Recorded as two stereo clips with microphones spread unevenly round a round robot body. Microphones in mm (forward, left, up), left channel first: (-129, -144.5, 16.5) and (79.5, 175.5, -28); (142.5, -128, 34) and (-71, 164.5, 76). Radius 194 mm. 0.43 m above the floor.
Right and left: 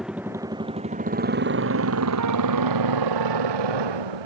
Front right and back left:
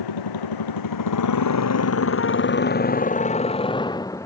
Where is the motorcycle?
30° right; by 4.3 s 30° left.